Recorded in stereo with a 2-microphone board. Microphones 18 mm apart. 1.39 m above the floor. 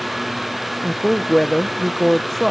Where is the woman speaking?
10° left (ahead or behind).